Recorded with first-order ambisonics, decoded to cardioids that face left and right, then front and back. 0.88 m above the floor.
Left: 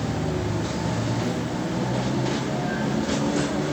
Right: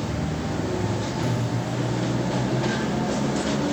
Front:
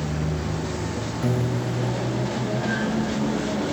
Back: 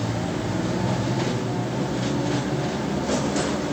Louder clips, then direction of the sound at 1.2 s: Even, even; 10° right.